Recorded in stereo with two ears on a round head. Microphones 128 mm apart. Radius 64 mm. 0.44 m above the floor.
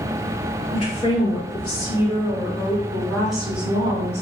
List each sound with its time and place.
0.7 s a woman speaking: 40° left (ahead or behind), 1.8 m; by 4.2 s 20° right (ahead or behind), 1.4 m